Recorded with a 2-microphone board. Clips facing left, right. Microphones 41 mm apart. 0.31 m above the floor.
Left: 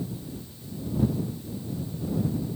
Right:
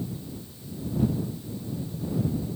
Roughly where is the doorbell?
I don't hear a doorbell.